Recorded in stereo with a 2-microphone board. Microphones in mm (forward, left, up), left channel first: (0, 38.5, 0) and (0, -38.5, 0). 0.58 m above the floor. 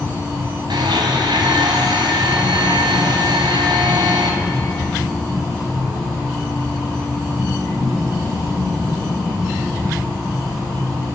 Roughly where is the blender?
Right.